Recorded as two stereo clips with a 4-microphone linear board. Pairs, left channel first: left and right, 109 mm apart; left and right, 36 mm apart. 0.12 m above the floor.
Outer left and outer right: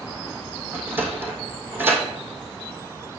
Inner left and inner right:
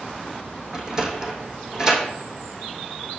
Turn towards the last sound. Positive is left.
turn(degrees=-20)  # may be behind; listen again after turning